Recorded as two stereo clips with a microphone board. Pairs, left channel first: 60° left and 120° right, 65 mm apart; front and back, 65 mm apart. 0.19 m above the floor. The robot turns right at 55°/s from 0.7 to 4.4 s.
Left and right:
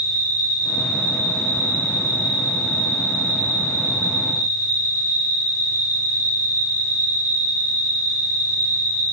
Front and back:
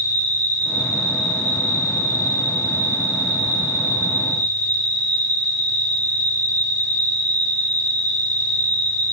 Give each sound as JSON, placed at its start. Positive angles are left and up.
{"t": 0.0, "sound": "an insect", "azimuth_deg": -135, "distance_m": 1.5}